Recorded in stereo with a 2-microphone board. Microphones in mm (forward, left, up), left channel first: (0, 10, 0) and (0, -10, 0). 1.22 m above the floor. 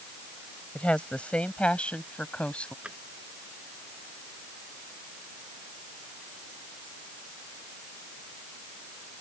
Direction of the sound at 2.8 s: 75° right (ahead or behind).